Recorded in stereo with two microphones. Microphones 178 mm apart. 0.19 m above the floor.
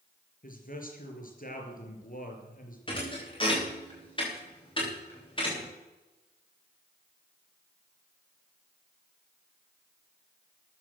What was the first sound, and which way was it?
A man speaking, 50° left (ahead or behind).